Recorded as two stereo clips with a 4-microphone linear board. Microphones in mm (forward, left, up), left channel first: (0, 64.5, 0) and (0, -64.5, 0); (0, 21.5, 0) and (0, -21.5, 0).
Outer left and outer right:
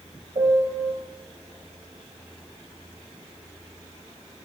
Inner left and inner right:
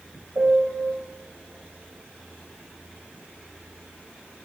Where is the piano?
60° right (ahead or behind), 5.5 m.